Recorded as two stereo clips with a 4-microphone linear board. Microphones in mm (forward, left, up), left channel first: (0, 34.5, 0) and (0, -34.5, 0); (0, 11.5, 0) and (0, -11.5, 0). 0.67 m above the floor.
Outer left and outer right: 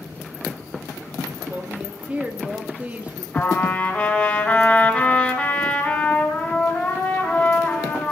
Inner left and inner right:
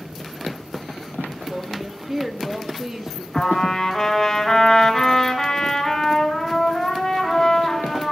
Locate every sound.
1.5 s a woman speaking: 20° right (ahead or behind), 1.0 m
3.3 s a trumpet: 20° left (ahead or behind), 3.5 m